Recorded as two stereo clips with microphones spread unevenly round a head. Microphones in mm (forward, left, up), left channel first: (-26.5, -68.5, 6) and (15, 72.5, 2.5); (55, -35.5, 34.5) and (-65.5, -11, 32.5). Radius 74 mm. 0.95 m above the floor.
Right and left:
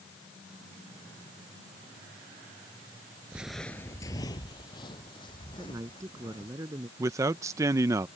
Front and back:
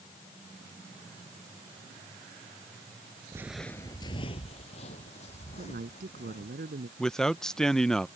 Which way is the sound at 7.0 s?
70° left.